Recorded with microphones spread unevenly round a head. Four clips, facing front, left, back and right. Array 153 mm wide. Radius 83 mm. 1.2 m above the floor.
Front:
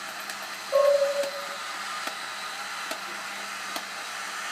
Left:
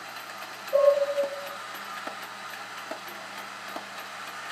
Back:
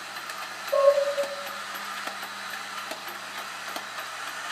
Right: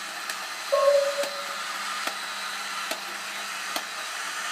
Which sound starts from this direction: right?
Dishes clattering, at 0.7 s.